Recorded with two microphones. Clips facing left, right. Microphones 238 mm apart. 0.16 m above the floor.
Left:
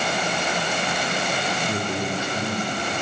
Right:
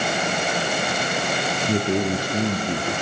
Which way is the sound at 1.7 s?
30° right (ahead or behind).